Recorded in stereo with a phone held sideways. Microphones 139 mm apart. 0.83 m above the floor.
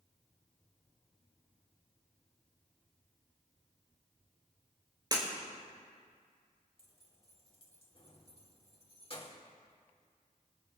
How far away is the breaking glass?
About 5.5 m.